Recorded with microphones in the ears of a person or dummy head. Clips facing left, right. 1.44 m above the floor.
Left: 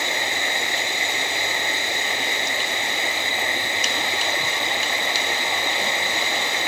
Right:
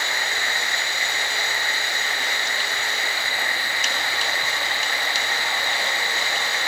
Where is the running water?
15° left (ahead or behind).